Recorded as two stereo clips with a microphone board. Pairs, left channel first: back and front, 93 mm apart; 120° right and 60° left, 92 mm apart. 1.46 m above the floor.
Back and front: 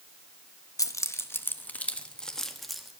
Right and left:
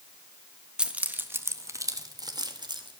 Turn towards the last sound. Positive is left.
turn(degrees=90)